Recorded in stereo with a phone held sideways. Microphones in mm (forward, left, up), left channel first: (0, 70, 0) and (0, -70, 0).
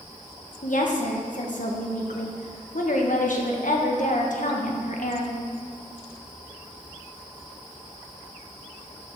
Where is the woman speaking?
65° left (ahead or behind), 1.5 m.